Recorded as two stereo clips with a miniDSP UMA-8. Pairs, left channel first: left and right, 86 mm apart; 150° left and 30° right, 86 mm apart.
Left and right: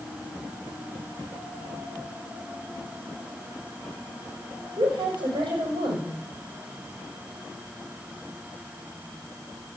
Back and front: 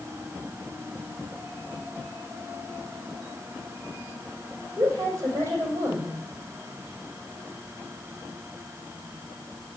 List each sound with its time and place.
4.8 s a woman speaking: 85° right, 5.5 m